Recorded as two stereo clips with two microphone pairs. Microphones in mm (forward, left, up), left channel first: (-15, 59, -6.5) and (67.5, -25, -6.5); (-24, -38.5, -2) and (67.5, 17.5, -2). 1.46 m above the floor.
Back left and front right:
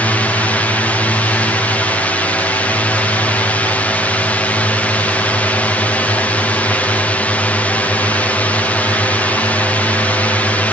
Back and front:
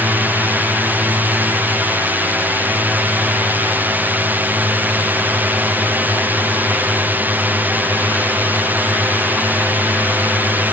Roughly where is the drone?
Left.